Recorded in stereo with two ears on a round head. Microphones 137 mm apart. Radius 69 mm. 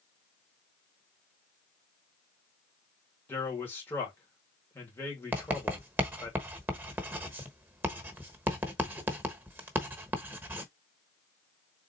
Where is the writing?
15° right (ahead or behind), 1.0 m.